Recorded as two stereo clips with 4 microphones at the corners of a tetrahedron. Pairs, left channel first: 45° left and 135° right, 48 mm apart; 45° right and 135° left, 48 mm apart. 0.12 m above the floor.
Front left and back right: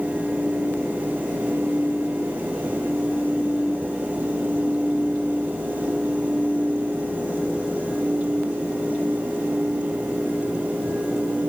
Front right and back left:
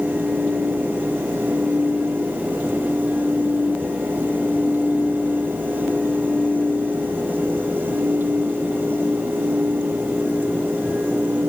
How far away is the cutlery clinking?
No cutlery clinking in this recording.